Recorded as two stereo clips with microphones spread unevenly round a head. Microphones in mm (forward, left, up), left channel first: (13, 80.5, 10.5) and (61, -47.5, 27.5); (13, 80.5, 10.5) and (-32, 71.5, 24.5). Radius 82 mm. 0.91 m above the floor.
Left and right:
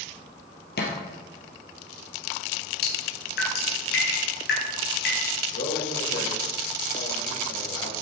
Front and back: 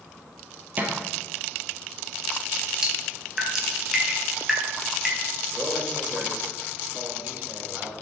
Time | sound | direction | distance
0.8 | a thud | 150° left | 3 m
2.8 | dripping | 115° left | 4 m
5.5 | a man speaking | 135° left | 4.5 m